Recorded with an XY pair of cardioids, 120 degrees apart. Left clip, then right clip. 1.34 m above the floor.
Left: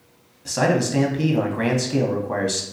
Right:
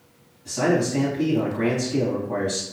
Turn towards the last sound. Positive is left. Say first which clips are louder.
# left 2 dB
turn(degrees=60)